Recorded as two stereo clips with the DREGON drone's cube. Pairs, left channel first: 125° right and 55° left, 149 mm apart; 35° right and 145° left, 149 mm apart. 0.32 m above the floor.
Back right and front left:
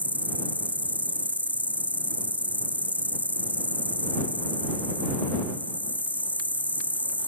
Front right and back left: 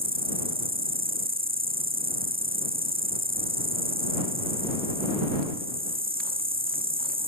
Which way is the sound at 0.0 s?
135° left.